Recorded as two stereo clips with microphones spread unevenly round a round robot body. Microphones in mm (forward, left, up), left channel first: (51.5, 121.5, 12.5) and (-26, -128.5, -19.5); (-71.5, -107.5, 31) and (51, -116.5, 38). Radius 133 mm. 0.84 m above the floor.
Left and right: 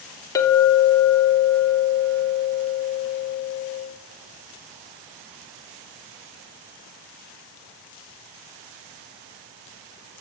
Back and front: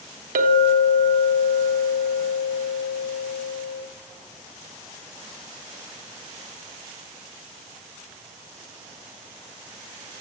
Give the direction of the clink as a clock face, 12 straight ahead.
12 o'clock.